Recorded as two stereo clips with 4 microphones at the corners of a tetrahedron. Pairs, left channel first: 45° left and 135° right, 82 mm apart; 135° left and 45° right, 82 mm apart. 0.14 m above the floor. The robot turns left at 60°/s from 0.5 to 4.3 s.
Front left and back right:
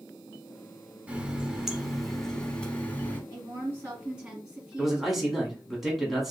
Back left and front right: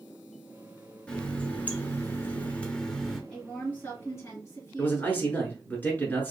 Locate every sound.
1.1 s a running tap: 170° right, 0.8 m; by 3.2 s 60° left, 0.8 m
3.3 s a woman speaking: 150° right, 1.9 m; by 5.4 s 150° left, 1.9 m
4.8 s a man speaking: 145° left, 1.2 m